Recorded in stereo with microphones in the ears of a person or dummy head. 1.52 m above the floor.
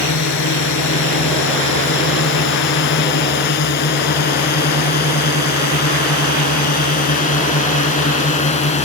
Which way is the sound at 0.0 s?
60° left (ahead or behind).